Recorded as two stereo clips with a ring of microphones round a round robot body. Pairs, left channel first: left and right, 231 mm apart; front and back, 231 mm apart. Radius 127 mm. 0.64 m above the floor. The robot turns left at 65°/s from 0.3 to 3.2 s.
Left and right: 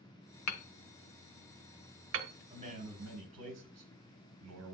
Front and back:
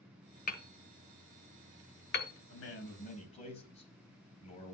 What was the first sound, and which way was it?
Hammering, 60° left.